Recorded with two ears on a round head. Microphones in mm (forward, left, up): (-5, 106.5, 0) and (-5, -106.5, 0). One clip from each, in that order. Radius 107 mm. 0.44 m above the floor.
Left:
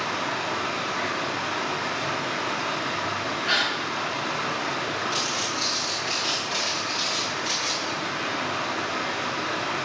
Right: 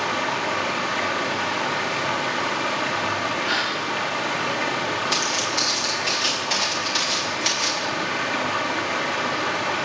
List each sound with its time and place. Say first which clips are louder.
0.0 s running water: right 4 dB; 85° right, 3.5 m
3.5 s a gasp: left 3 dB; 5° left (ahead or behind), 5.5 m
5.1 s footsteps: right 4 dB; 60° right (ahead or behind), 9 m; by 7.9 s 70° right (ahead or behind), 8 m